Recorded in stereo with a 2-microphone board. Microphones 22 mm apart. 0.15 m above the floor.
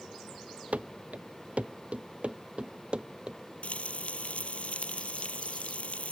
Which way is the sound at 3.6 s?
70° left (ahead or behind).